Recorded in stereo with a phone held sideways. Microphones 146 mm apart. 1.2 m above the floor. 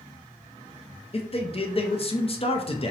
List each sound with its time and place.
1.1 s a man speaking: 40° left (ahead or behind), 0.5 m